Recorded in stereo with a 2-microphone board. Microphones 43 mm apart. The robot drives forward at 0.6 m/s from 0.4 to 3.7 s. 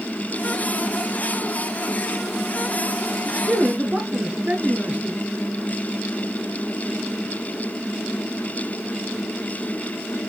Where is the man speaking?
35° right (ahead or behind), 1.2 m; by 5.2 s 30° right (ahead or behind), 1.3 m.